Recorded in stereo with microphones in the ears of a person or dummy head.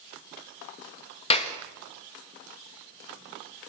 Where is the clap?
35° left (ahead or behind), 1.6 m.